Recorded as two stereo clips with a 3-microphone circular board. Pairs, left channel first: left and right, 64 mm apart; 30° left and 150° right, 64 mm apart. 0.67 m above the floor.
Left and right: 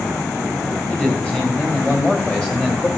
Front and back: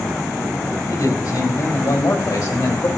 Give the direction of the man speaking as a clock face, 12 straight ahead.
11 o'clock.